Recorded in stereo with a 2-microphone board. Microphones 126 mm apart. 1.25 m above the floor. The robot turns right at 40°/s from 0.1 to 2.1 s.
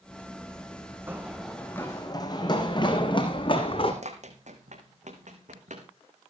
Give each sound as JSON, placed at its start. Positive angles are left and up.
{"t": 1.1, "sound": "running footsteps", "side_deg": -20, "distance_m": 3.5}
{"t": 4.0, "sound": "running footsteps", "side_deg": -65, "distance_m": 3.0}